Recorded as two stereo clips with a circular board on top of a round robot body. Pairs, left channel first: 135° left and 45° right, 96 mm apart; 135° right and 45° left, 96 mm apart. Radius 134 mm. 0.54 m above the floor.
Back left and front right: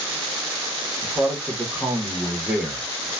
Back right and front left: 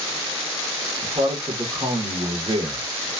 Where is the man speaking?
30° left, 1.3 m.